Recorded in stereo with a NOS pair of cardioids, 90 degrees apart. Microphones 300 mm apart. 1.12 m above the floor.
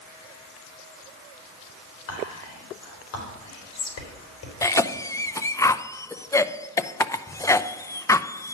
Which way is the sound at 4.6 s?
10° left.